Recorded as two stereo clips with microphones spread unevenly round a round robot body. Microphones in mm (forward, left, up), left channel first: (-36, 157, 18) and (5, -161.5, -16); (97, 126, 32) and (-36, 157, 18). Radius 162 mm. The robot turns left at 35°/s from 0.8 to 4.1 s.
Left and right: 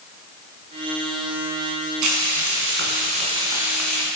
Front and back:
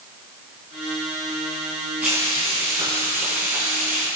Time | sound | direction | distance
2.0 | frying | 110° right | 3.5 m